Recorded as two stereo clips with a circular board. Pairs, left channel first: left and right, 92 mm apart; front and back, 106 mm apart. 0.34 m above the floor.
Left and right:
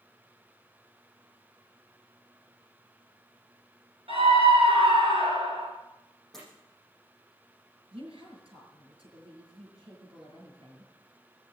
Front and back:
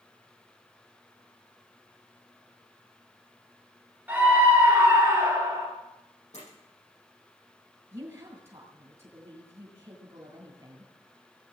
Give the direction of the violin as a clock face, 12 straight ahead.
I don't hear a violin.